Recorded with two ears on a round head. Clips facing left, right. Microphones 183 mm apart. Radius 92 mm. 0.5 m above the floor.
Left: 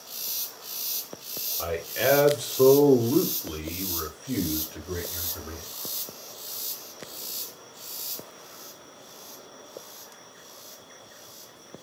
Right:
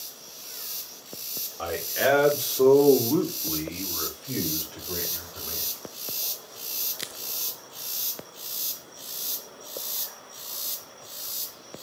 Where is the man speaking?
5° right (ahead or behind), 1.7 m; by 5.7 s 20° left (ahead or behind), 2 m.